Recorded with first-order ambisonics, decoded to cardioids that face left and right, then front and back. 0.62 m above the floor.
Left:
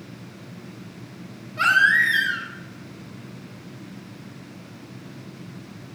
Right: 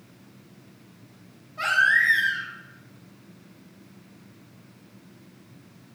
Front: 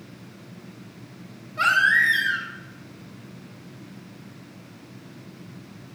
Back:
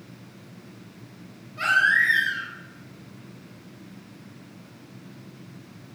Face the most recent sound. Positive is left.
turn(degrees=80)